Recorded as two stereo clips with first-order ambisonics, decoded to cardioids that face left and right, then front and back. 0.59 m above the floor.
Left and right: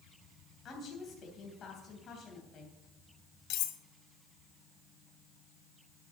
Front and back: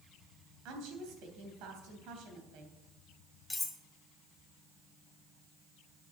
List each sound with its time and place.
0.7 s a woman speaking: 150° left, 3 m
3.5 s cutlery clinking: 80° left, 1.1 m